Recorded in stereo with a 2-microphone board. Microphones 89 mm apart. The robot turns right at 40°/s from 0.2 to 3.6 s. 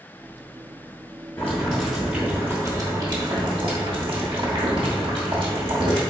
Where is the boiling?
160° left, 1.2 m; by 6.0 s 110° right, 1.2 m.